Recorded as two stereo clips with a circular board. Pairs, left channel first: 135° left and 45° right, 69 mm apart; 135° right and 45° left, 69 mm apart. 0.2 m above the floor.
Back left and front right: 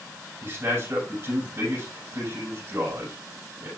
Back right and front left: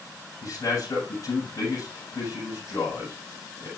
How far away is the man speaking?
About 7.5 m.